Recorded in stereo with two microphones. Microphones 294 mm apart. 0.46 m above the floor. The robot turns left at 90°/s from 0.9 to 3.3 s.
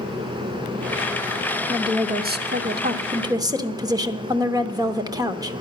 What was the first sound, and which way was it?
A woman speaking, 15° right.